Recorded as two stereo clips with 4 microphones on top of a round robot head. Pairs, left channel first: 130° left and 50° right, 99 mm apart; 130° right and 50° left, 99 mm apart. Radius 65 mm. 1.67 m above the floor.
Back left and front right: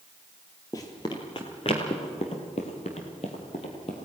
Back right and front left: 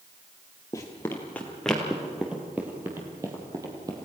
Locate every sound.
0.7 s running footsteps: straight behind, 2 m; by 4.0 s 100° left, 3 m